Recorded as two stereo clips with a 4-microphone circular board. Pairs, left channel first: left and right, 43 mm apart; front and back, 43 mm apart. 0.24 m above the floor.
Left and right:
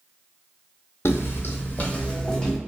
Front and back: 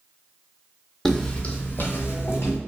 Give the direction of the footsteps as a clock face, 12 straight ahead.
9 o'clock.